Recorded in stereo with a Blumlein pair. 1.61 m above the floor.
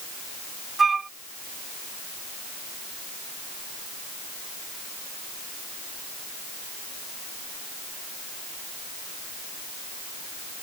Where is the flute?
15° right.